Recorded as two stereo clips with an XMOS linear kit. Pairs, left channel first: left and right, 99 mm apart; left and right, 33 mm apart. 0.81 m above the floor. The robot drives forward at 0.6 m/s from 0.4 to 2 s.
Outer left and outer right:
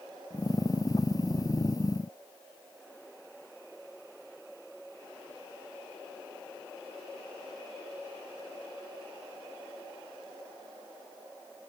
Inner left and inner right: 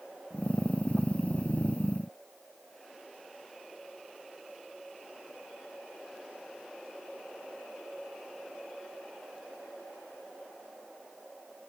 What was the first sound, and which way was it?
Only background noise.